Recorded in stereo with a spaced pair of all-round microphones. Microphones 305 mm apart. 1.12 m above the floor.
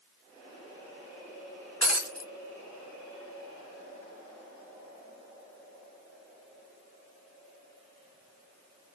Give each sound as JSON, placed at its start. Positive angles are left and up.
{"t": 1.8, "sound": "breaking glass", "side_deg": 60, "distance_m": 1.8}